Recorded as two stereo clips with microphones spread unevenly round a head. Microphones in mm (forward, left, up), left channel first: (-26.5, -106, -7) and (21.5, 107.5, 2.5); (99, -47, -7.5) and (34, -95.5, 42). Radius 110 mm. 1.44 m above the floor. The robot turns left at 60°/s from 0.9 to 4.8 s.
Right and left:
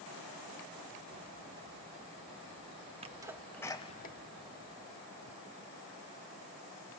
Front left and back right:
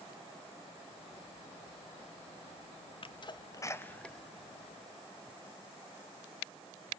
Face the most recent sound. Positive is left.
turn(degrees=-95)